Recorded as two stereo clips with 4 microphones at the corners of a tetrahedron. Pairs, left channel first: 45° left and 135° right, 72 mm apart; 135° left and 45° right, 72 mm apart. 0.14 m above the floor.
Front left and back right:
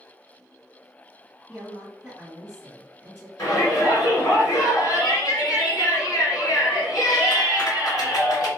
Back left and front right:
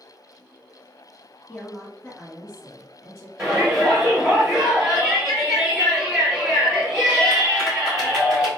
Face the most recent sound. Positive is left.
turn(degrees=30)